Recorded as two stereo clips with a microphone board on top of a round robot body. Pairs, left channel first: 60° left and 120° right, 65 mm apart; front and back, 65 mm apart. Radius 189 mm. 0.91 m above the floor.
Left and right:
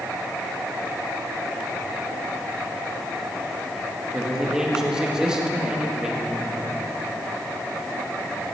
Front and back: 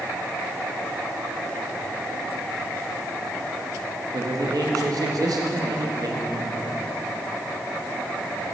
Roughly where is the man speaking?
Behind.